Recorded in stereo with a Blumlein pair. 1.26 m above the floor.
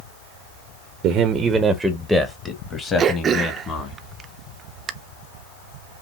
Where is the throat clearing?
25° right, 0.5 m.